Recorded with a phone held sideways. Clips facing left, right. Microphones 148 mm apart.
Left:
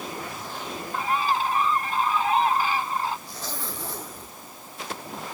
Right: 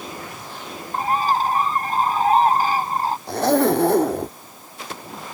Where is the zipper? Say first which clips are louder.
Right 20 dB; 70° right (ahead or behind).